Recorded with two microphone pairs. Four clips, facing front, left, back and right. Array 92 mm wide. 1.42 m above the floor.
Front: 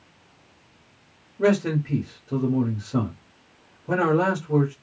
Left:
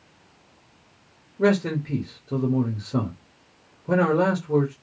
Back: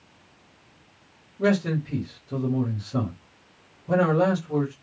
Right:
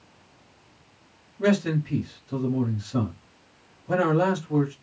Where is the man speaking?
60° left, 0.9 m.